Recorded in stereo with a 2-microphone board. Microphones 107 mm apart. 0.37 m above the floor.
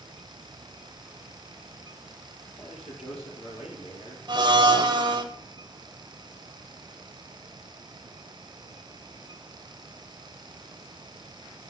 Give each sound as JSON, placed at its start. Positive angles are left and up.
{"t": 2.6, "sound": "a man speaking", "side_deg": 80, "distance_m": 5.5}
{"t": 4.3, "sound": "a blender", "side_deg": -45, "distance_m": 1.0}